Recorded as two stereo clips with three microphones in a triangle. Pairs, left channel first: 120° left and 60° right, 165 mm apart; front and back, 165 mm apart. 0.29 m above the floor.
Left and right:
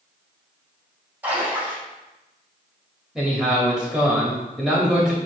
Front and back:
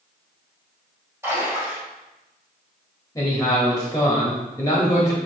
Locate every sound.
1.2 s a splash: 125° right, 1.6 m
3.1 s a man speaking: 20° left, 0.9 m